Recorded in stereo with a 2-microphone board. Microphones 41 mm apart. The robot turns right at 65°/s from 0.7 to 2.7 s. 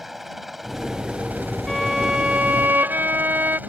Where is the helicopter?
5° right (ahead or behind); by 3.7 s 45° right (ahead or behind).